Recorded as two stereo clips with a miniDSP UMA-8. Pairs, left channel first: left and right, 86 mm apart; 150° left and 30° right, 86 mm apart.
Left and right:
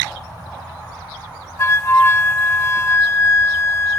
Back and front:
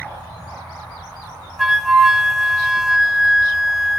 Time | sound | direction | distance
1.6 | a flute | 55° left | 0.7 m